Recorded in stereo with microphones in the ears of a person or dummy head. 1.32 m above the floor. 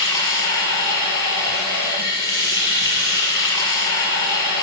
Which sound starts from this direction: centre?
Running water, at 0.0 s.